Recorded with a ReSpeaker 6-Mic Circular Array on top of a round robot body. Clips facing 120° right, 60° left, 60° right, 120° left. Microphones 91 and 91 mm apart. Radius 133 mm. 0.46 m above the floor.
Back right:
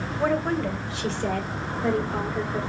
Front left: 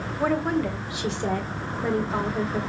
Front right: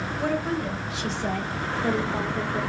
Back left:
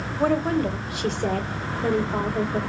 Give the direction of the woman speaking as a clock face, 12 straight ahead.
7 o'clock.